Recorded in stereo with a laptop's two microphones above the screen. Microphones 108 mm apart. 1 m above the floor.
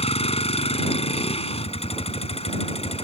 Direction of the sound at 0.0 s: 70° left (ahead or behind).